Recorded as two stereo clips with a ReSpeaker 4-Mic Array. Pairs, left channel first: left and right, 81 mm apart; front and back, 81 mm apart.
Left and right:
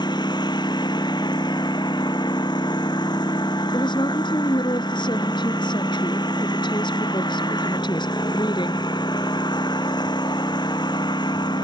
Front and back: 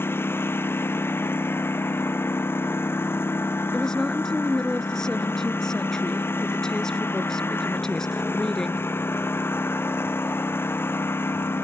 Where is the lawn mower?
60° left.